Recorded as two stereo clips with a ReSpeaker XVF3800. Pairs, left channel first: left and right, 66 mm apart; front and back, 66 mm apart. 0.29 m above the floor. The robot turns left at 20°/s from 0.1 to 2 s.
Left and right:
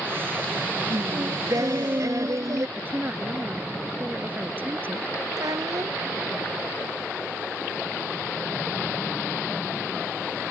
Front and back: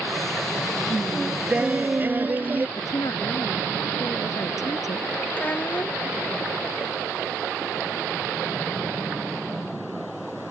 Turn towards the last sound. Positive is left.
turn(degrees=-60)